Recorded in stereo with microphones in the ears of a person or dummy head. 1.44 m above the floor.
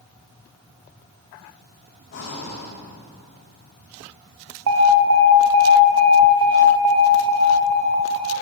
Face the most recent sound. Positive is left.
turn(degrees=-70)  # may be behind; listen again after turning